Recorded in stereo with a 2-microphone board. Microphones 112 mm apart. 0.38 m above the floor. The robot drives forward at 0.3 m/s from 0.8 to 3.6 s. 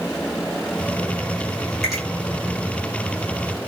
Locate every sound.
1.8 s a finger snap: centre (ahead or behind), 1.2 m